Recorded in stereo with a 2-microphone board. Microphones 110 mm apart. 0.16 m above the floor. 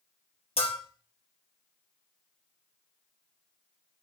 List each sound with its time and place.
0.6 s a bell: 70° left (ahead or behind), 3 m